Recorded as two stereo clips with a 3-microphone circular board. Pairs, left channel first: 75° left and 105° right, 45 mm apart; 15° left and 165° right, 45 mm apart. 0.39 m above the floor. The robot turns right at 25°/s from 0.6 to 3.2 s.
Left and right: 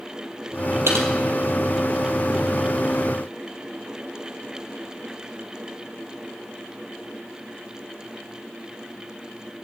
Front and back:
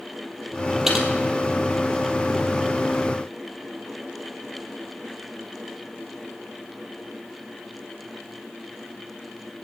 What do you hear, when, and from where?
0.9 s typing on a keyboard: 85° right, 2 m; by 1.1 s 80° right, 2 m